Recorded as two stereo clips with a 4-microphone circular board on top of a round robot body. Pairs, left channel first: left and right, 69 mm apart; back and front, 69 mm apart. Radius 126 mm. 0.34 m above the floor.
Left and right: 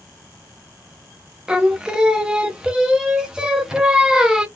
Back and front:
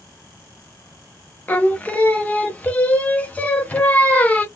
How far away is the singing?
About 1.3 m.